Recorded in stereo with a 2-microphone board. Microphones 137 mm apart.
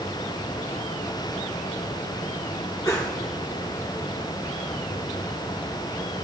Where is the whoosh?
25° left (ahead or behind), 2.5 m.